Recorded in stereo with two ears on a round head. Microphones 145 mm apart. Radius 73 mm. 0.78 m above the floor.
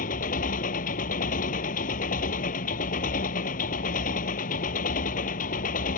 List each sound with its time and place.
0.0 s an engine running: 55° left (ahead or behind)